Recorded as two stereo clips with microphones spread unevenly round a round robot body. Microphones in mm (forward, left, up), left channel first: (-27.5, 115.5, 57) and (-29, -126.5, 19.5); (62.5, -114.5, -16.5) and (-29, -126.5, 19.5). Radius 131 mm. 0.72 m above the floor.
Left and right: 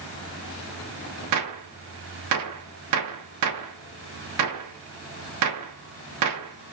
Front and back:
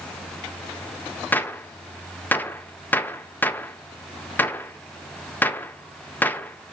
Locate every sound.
1.3 s a gunshot: 70° right, 0.5 m